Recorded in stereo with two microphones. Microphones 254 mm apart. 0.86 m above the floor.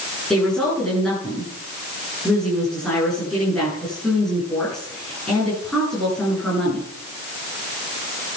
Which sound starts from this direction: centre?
A woman speaking, at 0.3 s.